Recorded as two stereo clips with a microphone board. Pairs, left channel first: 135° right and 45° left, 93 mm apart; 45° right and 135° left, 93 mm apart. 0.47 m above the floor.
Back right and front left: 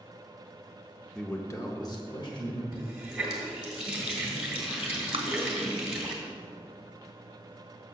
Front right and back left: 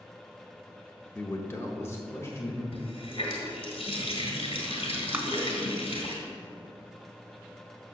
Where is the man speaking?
65° right, 0.8 m; by 2.6 s 105° right, 2.5 m.